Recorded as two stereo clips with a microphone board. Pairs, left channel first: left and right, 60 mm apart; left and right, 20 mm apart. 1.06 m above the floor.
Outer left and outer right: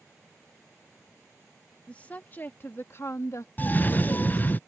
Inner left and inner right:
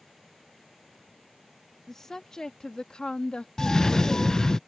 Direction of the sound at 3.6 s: 30° left (ahead or behind).